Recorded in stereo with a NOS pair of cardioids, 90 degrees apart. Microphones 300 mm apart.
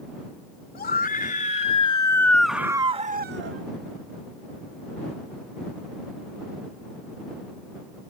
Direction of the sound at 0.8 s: 35° left.